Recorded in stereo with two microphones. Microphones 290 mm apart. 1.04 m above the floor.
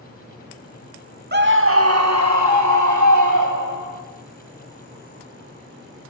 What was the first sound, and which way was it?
A scream, 35° right (ahead or behind).